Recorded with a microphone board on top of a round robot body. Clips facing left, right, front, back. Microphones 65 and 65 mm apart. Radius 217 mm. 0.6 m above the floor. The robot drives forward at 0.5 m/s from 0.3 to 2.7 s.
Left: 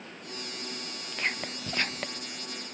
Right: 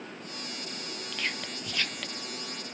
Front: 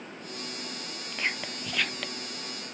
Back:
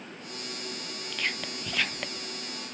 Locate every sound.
1.1 s whispering: 50° left, 0.9 m; by 2.3 s 125° left, 0.9 m